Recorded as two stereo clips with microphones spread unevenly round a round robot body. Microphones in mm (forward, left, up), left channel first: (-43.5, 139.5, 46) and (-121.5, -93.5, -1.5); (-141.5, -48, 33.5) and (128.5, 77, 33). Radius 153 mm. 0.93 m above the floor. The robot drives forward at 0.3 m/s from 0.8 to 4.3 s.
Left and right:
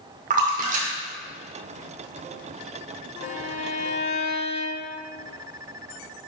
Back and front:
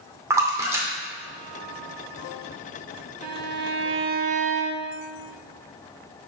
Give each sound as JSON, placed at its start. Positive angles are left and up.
{"t": 0.3, "sound": "a splash", "azimuth_deg": -50, "distance_m": 0.6}
{"t": 3.2, "sound": "a violin", "azimuth_deg": 30, "distance_m": 0.7}